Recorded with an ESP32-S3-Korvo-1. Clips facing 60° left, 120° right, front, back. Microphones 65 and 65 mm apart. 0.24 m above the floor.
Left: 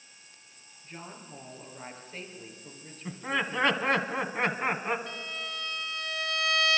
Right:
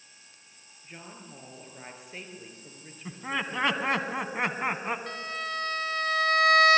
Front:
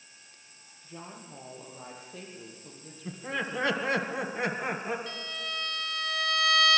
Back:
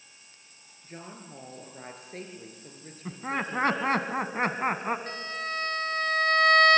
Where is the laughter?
155° left, 1.6 m.